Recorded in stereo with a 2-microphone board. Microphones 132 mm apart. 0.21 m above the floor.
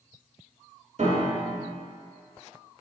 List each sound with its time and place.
1.0 s a piano: 60° right (ahead or behind), 1.1 m